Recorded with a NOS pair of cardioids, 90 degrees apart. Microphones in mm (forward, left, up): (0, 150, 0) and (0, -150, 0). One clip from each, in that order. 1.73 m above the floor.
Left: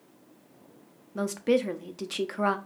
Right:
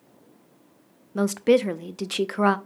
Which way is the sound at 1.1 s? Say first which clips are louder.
Right 6 dB; 25° right.